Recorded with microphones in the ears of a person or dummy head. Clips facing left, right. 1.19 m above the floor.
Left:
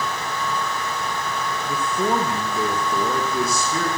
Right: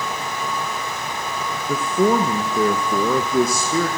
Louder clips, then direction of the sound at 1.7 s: Right 6 dB; 70° right (ahead or behind).